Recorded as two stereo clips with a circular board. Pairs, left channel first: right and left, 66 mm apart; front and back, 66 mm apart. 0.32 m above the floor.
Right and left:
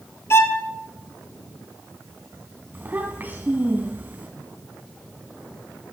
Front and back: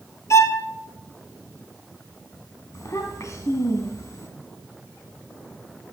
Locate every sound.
0.3 s a violin: 40° right, 1.2 m
2.7 s a child speaking: 30° left, 1.5 m